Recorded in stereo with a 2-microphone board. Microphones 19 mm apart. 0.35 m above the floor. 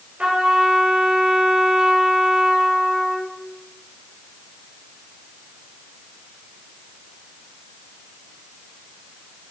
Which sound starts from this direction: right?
A trumpet, at 0.2 s.